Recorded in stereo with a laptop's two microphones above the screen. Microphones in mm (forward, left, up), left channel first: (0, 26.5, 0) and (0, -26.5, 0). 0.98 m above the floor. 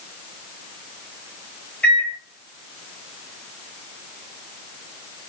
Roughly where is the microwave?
Left.